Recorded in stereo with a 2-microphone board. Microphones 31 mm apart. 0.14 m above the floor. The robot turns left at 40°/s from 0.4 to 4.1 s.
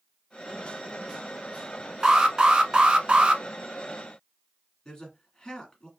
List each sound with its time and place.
2.0 s an alarm: 45° right, 0.8 m; by 3.4 s 100° right, 0.8 m
4.8 s a man speaking: 25° left (ahead or behind), 1.4 m